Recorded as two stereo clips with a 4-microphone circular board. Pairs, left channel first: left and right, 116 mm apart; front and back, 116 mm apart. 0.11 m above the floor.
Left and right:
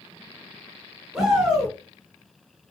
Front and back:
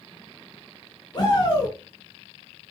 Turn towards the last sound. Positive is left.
turn(degrees=-10)